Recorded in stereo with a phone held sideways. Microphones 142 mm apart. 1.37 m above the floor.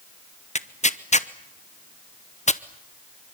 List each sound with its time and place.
0.6 s tearing paper: 55° left (ahead or behind), 0.8 m